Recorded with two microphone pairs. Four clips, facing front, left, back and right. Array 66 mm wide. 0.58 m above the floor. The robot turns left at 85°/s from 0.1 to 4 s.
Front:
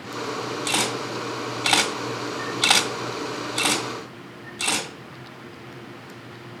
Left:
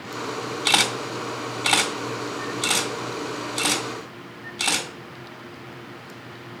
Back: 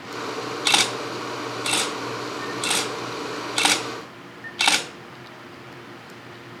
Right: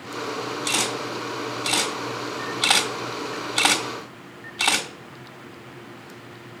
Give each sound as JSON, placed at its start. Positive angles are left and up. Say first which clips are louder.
{"t": 0.7, "sound": "a camera shutter", "louder": "left 6 dB, back 4 dB", "azimuth_deg": 125, "distance_m": 1.6}